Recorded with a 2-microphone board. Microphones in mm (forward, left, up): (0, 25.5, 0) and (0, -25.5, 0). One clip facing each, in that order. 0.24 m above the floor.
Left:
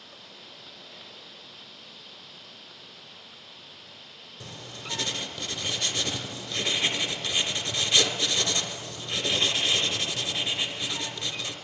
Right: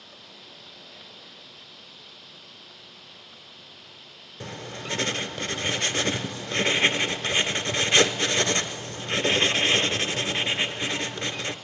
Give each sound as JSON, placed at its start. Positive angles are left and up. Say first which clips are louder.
{"t": 4.4, "sound": "writing", "louder": "right 6 dB", "side_deg": -45, "distance_m": 0.7}